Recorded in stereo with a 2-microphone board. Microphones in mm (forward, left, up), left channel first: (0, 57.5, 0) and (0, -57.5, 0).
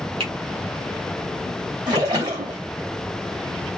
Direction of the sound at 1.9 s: 35° right (ahead or behind).